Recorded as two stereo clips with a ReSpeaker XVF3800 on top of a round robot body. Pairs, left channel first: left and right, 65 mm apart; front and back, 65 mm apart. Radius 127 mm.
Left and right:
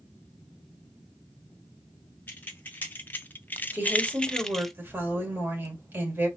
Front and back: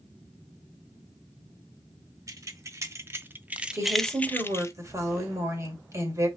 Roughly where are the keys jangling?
Behind left.